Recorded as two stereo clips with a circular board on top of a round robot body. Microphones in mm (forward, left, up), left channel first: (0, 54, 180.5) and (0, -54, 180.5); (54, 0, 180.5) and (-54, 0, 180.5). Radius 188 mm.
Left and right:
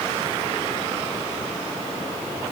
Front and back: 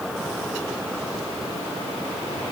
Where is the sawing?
No sawing in this recording.